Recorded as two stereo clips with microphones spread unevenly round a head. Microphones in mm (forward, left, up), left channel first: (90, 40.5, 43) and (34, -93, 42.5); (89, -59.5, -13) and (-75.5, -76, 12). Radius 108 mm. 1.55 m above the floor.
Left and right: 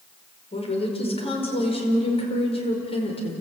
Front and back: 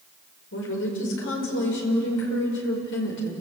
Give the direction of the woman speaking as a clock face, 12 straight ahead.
11 o'clock.